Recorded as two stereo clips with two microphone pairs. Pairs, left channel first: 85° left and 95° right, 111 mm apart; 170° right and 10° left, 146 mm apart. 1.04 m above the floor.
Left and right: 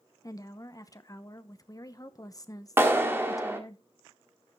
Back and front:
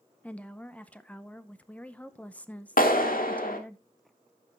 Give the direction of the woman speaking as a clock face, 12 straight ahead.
8 o'clock.